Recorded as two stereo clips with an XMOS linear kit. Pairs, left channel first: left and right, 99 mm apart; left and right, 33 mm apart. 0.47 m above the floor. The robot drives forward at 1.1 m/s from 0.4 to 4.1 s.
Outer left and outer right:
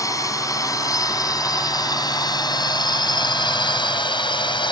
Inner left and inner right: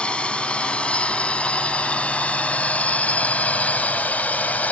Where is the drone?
35° left (ahead or behind); by 4.7 s 55° left (ahead or behind).